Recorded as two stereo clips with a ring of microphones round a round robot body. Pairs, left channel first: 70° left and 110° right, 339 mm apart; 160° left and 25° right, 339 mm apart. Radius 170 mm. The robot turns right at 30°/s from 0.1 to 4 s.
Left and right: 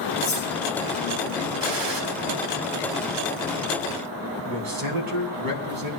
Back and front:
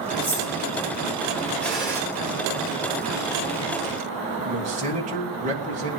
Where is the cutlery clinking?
95° left, 9.5 m; by 0.5 s 105° left, 9.5 m.